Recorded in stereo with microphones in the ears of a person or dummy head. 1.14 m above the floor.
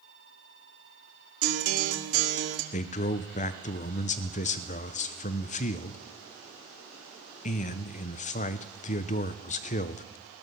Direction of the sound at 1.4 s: 75° right (ahead or behind).